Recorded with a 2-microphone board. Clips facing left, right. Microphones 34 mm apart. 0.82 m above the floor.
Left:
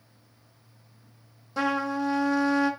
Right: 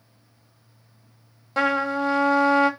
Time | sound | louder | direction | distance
1.6 | a trumpet | right 5 dB | 55° right (ahead or behind) | 0.9 m